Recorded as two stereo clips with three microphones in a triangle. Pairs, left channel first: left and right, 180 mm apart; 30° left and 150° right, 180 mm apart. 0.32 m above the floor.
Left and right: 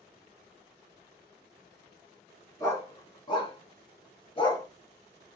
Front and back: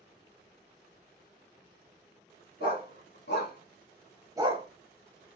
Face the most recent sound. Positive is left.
turn(degrees=160)